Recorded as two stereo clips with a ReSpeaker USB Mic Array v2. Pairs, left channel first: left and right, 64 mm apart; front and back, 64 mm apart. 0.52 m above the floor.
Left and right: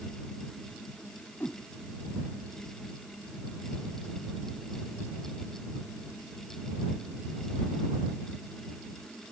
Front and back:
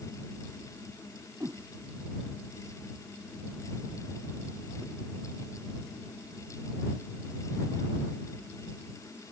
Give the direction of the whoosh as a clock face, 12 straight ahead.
7 o'clock.